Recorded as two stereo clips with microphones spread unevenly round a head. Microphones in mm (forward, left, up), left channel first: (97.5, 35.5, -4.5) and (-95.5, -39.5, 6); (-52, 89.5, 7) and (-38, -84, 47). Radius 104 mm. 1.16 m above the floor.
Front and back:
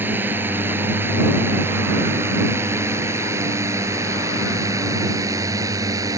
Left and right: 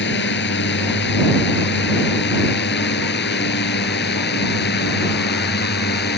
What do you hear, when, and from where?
0.0 s a drone: 120° left; by 6.2 s 125° left